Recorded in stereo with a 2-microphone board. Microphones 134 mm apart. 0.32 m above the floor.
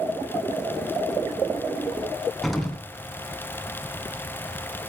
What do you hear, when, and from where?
2.4 s an explosion: centre (ahead or behind), 2.5 m